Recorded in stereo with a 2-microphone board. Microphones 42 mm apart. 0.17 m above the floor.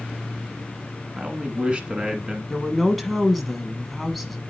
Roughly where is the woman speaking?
Centre.